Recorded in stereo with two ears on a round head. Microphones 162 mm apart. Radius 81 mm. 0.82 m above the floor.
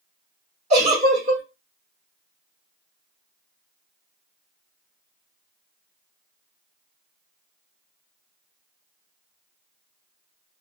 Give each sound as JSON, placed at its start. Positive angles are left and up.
{"t": 0.7, "sound": "a giggle", "side_deg": -40, "distance_m": 1.4}